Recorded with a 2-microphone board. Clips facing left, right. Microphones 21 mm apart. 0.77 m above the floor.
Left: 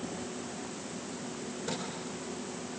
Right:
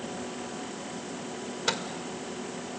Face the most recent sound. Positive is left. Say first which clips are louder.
# right 8 dB
turn(degrees=-65)  # may be behind; listen again after turning